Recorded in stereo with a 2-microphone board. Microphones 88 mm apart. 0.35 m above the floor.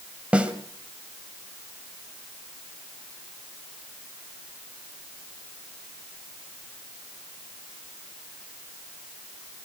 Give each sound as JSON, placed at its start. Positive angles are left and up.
{"t": 0.3, "sound": "a snare drum", "side_deg": -15, "distance_m": 2.0}